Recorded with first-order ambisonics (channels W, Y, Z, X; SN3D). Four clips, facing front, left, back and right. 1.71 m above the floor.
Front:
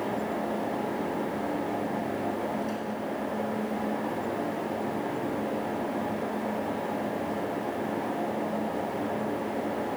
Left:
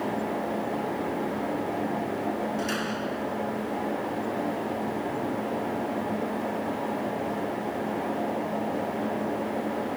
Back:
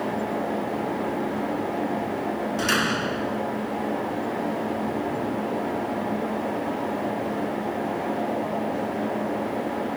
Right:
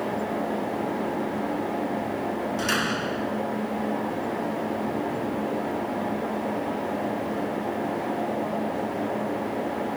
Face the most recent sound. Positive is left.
turn(degrees=-155)